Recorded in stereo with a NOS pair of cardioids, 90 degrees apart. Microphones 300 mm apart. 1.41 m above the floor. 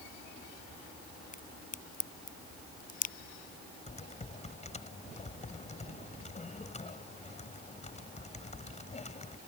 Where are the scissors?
No scissors in this recording.